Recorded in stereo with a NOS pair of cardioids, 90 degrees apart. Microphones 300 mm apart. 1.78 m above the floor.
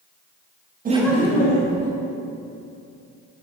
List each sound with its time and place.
0.8 s laughter: 30° right, 0.6 m; by 1.9 s 70° left, 1.2 m